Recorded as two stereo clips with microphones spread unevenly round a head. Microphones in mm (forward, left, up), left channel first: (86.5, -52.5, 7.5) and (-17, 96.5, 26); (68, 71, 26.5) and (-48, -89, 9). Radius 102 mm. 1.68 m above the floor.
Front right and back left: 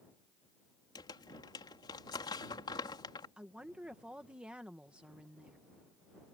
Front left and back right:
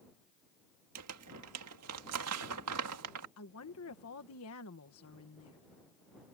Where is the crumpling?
130° right.